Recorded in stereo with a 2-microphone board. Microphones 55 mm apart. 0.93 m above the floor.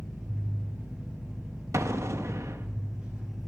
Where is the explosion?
60° right (ahead or behind), 1.0 m.